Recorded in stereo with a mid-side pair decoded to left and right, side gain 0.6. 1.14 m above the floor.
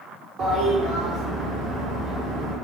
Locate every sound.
0.4 s a toilet flushing: 60° right, 0.9 m